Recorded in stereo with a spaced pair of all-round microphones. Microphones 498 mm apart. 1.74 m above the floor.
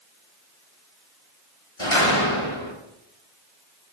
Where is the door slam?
80° left, 6.5 m.